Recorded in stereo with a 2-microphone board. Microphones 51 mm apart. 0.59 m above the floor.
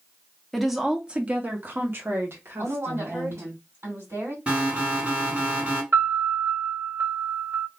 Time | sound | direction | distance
0.5 | a woman speaking | 5° left (ahead or behind) | 0.8 m
2.6 | a woman speaking | 55° right (ahead or behind) | 2.5 m
4.5 | an alarm | 25° right (ahead or behind) | 2.5 m
5.9 | a piano | 65° right (ahead or behind) | 1.6 m